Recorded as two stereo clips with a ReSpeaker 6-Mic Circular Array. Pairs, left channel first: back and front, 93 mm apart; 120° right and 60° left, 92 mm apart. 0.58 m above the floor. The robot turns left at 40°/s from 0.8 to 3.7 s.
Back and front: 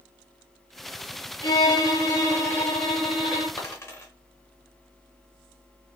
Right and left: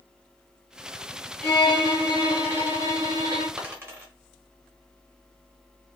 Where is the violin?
160° left, 1.7 m; by 3.5 s 80° left, 1.7 m.